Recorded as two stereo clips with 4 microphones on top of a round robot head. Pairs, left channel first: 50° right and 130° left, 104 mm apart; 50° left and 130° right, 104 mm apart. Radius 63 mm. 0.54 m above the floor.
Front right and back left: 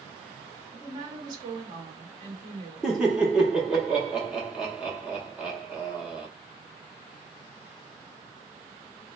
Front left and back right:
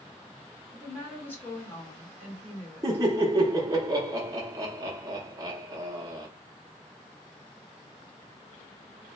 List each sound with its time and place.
0.7 s a woman speaking: 115° left, 1.6 m
2.8 s laughter: 150° right, 0.8 m